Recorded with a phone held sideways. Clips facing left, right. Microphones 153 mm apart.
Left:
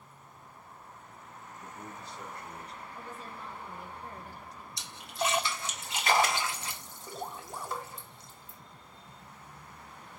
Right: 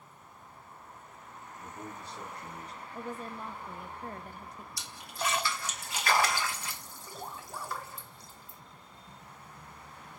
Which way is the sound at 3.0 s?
50° right (ahead or behind).